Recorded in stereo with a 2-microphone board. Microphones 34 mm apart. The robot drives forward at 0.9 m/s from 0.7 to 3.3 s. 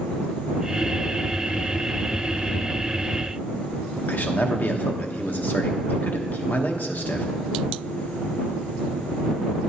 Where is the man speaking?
65° left (ahead or behind), 0.9 m.